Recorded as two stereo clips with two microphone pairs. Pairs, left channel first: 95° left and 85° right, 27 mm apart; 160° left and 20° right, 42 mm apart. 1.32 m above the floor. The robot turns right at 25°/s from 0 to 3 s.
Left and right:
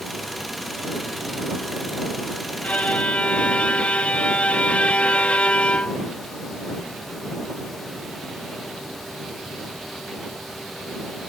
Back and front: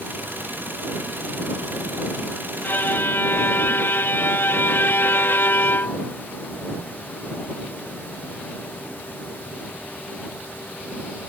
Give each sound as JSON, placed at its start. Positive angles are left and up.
{"t": 2.6, "sound": "a violin", "azimuth_deg": 120}